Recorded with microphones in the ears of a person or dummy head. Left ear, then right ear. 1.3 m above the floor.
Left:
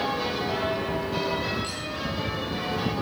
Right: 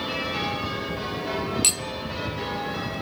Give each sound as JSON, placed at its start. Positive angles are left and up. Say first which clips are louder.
{"t": 1.6, "sound": "cutlery clinking", "louder": "right 8 dB", "side_deg": -40, "distance_m": 0.6}